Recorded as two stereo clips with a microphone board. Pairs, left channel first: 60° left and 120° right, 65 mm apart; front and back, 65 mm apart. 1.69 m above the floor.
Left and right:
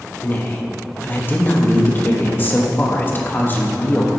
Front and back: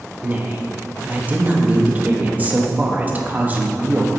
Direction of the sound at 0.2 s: 120° left.